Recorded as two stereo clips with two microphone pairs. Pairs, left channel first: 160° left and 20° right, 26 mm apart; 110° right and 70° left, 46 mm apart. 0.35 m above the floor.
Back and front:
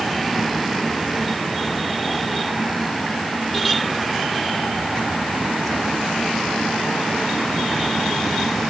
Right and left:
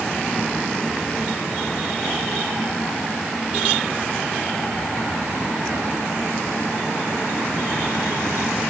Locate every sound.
Only background noise.